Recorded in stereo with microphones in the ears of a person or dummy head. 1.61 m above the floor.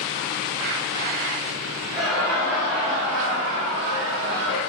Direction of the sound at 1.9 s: Centre (ahead or behind).